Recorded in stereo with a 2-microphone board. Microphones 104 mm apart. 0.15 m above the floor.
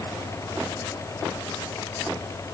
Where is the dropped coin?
No dropped coin in this recording.